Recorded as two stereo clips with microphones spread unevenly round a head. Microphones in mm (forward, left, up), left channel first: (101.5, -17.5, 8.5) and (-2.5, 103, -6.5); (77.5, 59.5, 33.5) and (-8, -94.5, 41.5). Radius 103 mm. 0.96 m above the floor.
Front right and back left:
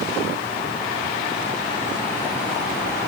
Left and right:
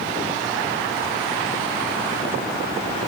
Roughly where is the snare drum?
No snare drum in this recording.